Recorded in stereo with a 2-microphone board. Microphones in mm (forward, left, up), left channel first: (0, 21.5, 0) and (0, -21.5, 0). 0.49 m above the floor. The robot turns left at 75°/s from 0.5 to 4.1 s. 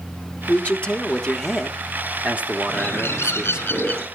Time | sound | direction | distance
0.5 | a man speaking | 80° left | 1.2 m
2.7 | a bird | 150° left | 4.5 m